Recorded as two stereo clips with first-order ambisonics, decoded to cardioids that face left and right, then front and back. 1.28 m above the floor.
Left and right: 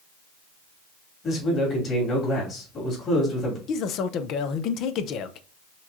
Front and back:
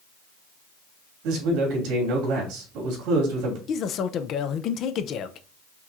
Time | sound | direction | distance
1.2 | a man speaking | 150° left | 3 m
3.7 | a man speaking | 50° left | 0.6 m